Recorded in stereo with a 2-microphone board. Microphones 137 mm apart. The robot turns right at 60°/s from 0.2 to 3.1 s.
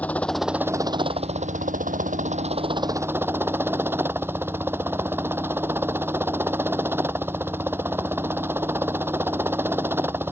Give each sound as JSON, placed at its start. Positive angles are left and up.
{"t": 0.0, "sound": "a helicopter", "azimuth_deg": 170}